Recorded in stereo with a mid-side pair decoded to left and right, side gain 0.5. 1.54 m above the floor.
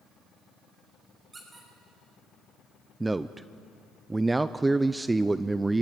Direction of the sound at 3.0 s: 15° right.